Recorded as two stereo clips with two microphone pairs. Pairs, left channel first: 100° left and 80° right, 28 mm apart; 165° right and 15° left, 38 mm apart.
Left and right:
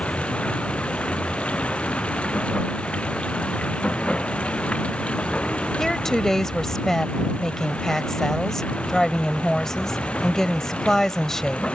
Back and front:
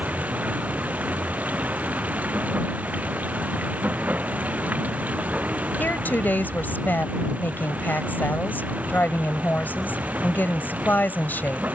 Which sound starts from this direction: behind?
A woman speaking, at 5.8 s.